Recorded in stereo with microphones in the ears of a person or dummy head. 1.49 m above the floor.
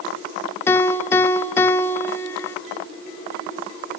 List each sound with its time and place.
0.7 s a piano: 10° left (ahead or behind), 0.5 m